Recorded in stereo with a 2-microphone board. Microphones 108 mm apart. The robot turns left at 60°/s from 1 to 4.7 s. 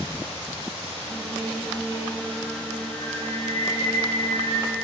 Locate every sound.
1.1 s singing: 100° right, 3.5 m; by 4.8 s 45° left, 3.5 m